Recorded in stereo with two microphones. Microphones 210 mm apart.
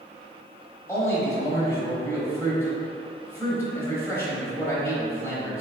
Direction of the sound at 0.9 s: 10° left (ahead or behind).